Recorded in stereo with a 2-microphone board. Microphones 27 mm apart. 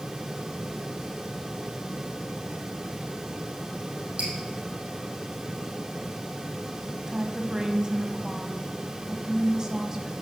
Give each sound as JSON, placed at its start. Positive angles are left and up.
{"t": 4.2, "sound": "dripping", "side_deg": -50, "distance_m": 4.0}
{"t": 7.1, "sound": "a woman speaking", "side_deg": -20, "distance_m": 1.3}